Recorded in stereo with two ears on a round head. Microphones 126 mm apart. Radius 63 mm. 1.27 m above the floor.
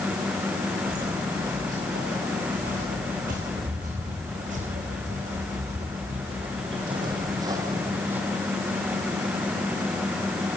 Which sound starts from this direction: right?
Footsteps, at 0.8 s.